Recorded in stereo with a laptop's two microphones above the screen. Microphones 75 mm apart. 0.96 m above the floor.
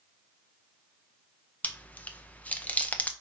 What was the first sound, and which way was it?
Chewing, 20° left (ahead or behind).